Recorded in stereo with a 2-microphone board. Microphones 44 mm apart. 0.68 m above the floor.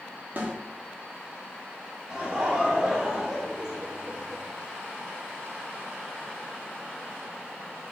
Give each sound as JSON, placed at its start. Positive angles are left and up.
{"t": 0.4, "sound": "a snare drum", "side_deg": -45, "distance_m": 1.8}
{"t": 2.1, "sound": "laughter", "side_deg": -15, "distance_m": 2.5}